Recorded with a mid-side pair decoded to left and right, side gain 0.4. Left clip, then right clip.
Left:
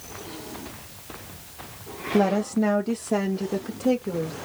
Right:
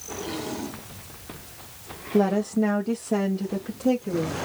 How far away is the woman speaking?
About 1.4 m.